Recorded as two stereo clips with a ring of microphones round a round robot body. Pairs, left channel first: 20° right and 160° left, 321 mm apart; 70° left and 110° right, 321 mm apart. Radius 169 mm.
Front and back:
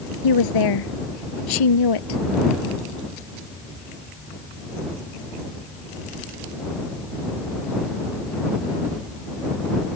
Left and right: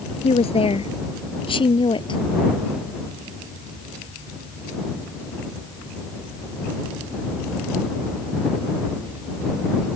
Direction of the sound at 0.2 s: 5° right.